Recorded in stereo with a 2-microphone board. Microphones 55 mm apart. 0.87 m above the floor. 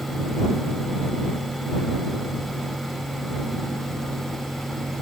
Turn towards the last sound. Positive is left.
No sound to turn to.